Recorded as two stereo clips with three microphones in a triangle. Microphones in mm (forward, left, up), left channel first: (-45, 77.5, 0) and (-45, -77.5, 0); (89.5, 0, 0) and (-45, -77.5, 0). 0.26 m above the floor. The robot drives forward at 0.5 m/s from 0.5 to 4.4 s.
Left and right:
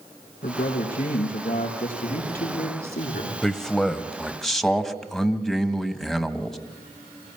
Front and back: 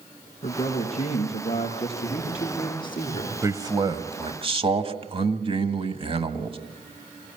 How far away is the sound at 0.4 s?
About 5 m.